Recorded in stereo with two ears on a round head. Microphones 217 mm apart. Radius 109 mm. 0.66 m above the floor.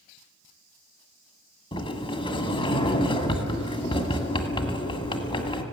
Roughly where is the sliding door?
Left.